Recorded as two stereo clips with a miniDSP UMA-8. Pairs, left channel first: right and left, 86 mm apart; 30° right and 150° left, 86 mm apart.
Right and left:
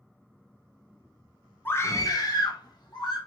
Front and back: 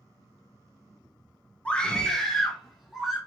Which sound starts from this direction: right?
A scream, at 1.6 s.